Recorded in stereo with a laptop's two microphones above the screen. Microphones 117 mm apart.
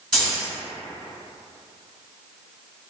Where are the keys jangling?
Centre (ahead or behind), 1.2 m.